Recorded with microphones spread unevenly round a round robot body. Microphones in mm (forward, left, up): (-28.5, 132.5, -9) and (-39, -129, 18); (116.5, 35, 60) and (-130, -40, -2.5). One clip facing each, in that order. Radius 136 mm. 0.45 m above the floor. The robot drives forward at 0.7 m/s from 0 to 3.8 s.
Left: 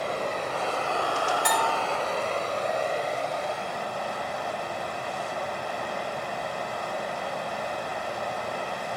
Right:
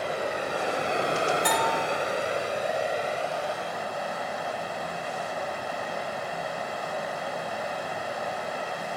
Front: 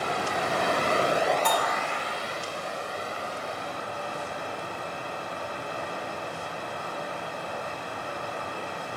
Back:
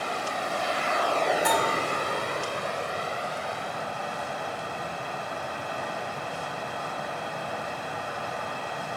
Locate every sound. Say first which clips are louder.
0.0 s running water: even, front 3 dB; 5° right, 0.9 m; by 9.0 s 175° right, 1.9 m
1.4 s a bell: right 1 dB, back 2 dB; 120° left, 2.5 m; by 1.8 s 125° left, 2.5 m